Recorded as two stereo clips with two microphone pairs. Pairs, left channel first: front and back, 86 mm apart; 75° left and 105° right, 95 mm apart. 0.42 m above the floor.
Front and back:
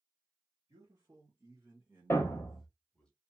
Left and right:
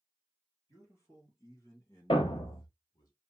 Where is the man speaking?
130° left, 2.5 m; by 3.1 s 70° left, 1.4 m.